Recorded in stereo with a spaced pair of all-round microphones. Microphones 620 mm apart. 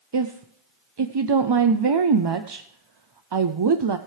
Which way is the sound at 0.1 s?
45° right (ahead or behind).